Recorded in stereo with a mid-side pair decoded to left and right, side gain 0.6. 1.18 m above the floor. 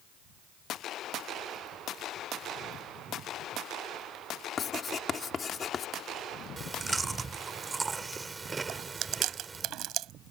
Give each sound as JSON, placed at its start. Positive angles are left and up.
{"t": 4.6, "sound": "writing", "azimuth_deg": 35}
{"t": 6.6, "sound": "chewing", "azimuth_deg": -20}
{"t": 8.7, "sound": "chewing", "azimuth_deg": -60}